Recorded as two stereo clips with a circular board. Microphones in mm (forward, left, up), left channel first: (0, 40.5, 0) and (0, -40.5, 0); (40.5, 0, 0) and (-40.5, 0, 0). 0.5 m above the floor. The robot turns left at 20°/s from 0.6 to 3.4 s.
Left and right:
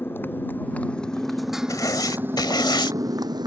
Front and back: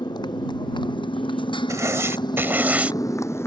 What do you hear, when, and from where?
0.0 s a motorcycle: 30° left; by 3.5 s 55° right
1.7 s writing: 135° left; by 3.0 s 105° left